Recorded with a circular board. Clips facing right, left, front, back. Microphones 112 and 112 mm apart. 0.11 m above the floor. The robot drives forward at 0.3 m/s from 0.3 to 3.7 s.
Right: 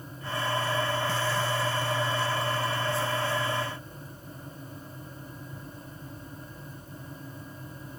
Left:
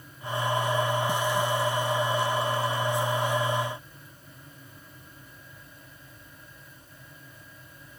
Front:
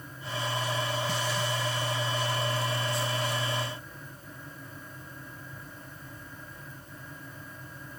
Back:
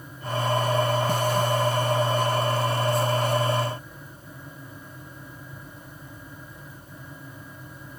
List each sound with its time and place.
Only background noise.